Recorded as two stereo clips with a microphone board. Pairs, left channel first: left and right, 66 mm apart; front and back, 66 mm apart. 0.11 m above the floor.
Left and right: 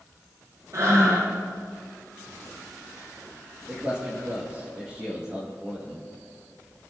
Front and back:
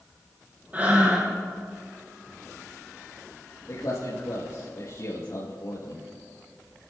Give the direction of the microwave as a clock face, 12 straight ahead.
No microwave in this recording.